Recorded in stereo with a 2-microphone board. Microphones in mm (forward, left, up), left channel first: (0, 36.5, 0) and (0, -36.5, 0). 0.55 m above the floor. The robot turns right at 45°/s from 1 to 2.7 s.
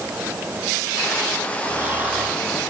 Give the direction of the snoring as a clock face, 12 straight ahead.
1 o'clock.